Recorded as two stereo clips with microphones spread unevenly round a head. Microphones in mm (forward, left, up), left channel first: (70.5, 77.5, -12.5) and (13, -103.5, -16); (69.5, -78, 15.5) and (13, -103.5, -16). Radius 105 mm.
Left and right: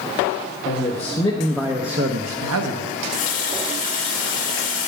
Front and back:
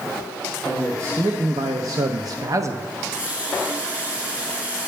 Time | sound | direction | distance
0.7 | a man speaking | 130° left | 1.4 m
2.9 | a running tap | 105° left | 2 m